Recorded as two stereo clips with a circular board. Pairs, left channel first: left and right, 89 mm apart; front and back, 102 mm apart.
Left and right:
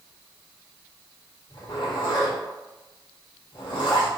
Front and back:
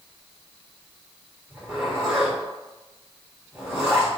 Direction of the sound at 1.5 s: 105° left.